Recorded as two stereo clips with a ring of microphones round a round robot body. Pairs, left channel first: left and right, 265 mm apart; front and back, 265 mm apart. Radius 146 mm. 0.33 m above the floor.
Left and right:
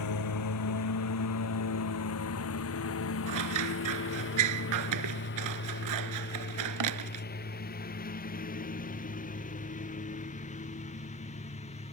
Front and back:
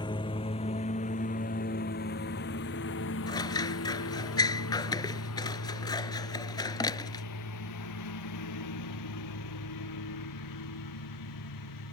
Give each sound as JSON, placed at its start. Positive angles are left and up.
{"t": 0.0, "sound": "a lawn mower", "azimuth_deg": 75}
{"t": 3.3, "sound": "scissors", "azimuth_deg": -75}